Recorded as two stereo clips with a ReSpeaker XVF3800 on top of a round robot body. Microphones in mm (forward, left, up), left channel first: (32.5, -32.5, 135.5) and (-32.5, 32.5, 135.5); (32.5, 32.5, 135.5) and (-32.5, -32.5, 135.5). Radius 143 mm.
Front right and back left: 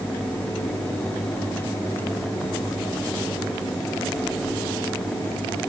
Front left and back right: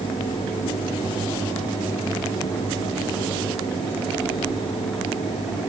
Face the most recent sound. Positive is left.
No sound to turn to.